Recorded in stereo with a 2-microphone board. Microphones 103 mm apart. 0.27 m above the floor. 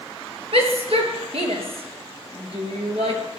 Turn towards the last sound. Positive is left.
turn(degrees=-65)  # may be behind; listen again after turning